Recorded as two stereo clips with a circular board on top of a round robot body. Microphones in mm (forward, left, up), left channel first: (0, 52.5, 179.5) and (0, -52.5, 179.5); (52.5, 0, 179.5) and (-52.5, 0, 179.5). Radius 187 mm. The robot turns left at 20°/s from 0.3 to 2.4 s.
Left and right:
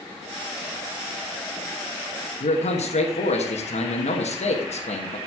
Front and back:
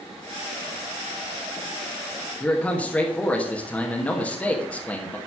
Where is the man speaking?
75° left, 1.5 m.